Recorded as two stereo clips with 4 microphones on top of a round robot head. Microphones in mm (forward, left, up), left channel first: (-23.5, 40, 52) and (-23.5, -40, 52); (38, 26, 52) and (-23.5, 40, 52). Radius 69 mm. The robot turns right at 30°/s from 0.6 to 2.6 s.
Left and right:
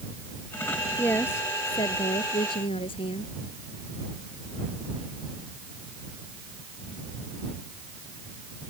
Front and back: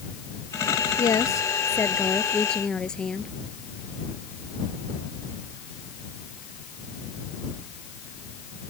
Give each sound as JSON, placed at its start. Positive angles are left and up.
{"t": 1.0, "sound": "a woman speaking", "azimuth_deg": 15}